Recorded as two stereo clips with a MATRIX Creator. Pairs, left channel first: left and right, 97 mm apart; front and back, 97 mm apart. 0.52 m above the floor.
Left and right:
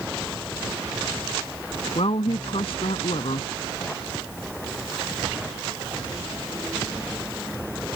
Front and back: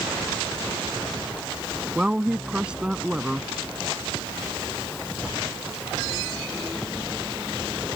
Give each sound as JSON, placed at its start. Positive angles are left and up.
{"t": 1.9, "sound": "a woman speaking", "azimuth_deg": 100}